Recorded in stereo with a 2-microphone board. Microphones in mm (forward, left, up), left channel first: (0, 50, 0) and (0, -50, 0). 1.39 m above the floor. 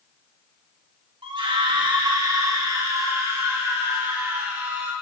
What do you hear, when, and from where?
1.2 s a scream: 60° right (ahead or behind), 2 m; by 4.9 s 20° right (ahead or behind), 5.5 m